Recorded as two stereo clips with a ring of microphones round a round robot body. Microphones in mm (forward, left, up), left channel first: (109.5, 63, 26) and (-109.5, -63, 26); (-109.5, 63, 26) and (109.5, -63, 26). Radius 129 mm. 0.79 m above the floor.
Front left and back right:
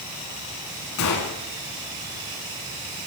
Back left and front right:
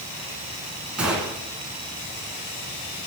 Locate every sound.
1.0 s a gunshot: 55° left, 2 m